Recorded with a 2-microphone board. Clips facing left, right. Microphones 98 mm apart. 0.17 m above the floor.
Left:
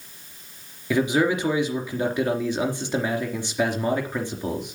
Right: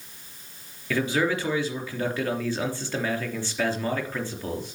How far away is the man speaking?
About 3.5 m.